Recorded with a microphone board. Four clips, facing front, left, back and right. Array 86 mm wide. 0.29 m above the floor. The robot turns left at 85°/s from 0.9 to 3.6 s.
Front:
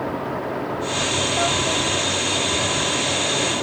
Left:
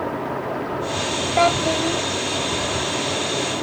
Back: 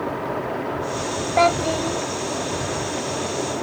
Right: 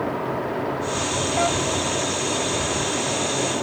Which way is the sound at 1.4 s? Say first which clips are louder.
Left 6 dB, back 8 dB; 150° left.